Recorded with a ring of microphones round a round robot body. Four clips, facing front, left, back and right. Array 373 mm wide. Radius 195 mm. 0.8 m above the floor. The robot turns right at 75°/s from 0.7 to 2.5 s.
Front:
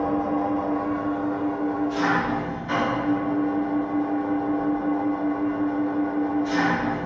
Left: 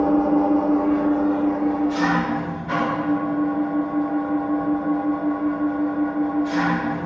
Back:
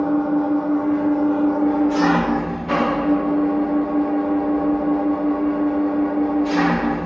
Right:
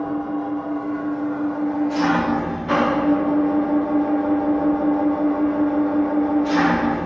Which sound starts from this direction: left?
An engine running, at 0.0 s.